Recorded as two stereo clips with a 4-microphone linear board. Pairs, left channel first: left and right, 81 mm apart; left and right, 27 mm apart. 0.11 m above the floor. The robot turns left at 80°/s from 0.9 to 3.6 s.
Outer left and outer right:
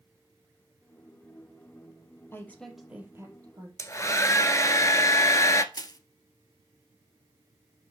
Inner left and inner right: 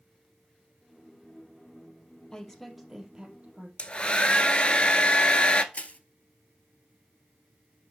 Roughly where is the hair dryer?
Left.